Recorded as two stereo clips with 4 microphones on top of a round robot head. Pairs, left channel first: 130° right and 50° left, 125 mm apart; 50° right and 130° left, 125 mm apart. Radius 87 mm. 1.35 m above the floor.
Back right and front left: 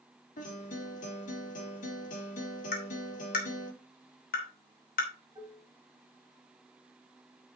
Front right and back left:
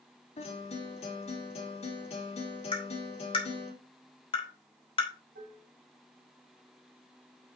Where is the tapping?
105° right, 3 m.